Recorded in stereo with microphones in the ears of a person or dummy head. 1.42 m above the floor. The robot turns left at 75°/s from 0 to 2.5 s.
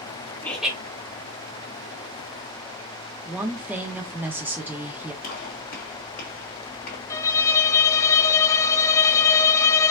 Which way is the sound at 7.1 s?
15° left (ahead or behind).